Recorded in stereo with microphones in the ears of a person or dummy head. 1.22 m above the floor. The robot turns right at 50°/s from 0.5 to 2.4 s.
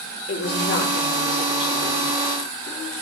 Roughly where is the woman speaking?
Ahead left.